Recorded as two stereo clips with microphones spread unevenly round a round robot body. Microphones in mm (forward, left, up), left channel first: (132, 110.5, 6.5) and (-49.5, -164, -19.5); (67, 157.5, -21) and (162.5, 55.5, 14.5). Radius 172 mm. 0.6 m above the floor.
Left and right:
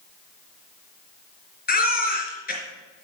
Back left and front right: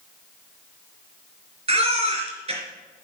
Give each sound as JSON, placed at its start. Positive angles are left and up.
{"t": 1.7, "sound": "a baby crying", "azimuth_deg": -5, "distance_m": 4.0}